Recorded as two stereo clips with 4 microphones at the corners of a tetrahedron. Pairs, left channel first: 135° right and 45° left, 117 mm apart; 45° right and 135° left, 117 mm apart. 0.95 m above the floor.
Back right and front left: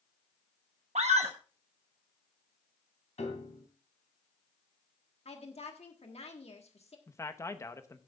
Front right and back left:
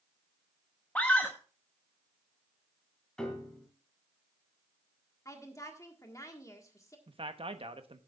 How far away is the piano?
About 2.5 m.